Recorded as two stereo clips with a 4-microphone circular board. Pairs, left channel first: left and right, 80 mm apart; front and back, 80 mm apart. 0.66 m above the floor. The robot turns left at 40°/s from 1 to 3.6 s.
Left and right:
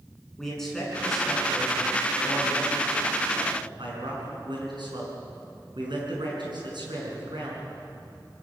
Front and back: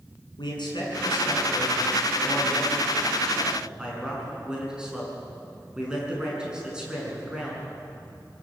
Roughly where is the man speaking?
Ahead.